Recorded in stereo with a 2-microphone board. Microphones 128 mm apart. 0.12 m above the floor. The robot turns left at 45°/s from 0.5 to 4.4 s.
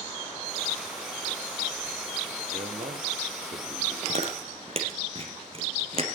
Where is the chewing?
55° right (ahead or behind), 2.5 m; by 6.1 s 45° right (ahead or behind), 2.5 m.